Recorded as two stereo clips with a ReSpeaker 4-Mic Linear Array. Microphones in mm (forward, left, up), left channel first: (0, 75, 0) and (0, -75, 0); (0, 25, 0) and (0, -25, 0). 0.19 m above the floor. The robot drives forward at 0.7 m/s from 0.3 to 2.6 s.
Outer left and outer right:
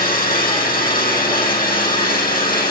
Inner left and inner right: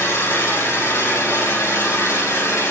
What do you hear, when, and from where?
0.0 s an engine running: 70° left (ahead or behind), 6.5 m; by 2.7 s 80° left, 6.5 m